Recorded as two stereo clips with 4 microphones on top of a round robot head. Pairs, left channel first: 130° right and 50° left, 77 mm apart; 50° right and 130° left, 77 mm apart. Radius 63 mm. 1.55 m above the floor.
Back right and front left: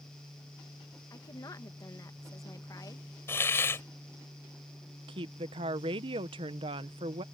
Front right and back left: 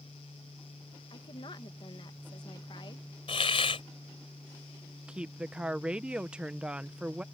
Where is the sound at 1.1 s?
85° right.